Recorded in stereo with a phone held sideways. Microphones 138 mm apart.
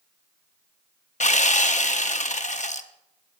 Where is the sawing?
60° left (ahead or behind), 0.6 m.